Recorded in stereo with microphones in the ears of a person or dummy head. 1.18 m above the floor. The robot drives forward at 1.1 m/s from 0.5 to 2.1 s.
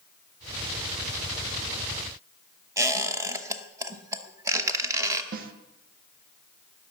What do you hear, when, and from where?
2.8 s a squeak: 20° right (ahead or behind), 0.9 m
5.3 s a snare drum: 50° right (ahead or behind), 1.1 m